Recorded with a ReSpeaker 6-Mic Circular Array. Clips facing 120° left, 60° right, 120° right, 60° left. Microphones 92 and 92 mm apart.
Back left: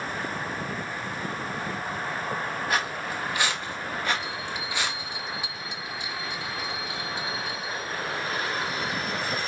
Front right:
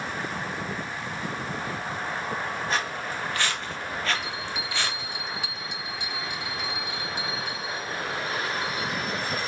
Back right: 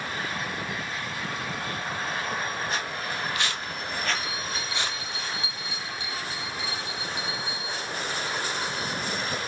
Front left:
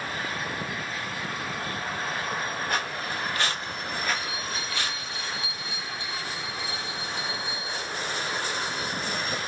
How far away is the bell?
About 1.0 m.